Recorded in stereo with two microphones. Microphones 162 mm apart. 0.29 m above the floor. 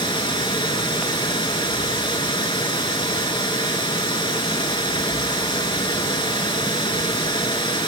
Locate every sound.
0.0 s running water: 30° left (ahead or behind), 0.8 m